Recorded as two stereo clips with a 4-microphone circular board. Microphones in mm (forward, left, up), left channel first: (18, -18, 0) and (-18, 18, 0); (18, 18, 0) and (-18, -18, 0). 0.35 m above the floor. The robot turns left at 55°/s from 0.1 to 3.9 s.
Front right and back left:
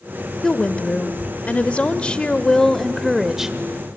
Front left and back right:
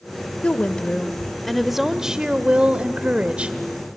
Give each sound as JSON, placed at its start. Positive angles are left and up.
{"t": 0.4, "sound": "a woman speaking", "azimuth_deg": 10, "distance_m": 0.8}